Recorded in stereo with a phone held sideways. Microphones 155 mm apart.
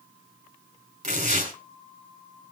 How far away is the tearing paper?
About 4 m.